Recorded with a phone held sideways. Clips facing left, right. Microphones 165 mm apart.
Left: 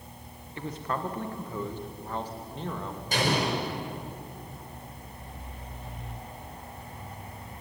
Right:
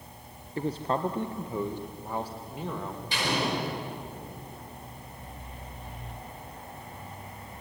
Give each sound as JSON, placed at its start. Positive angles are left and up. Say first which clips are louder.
{"t": 0.6, "sound": "a man speaking", "louder": "right 5 dB", "side_deg": -35, "distance_m": 0.9}
{"t": 3.1, "sound": "an explosion", "louder": "left 2 dB", "side_deg": 45, "distance_m": 6.0}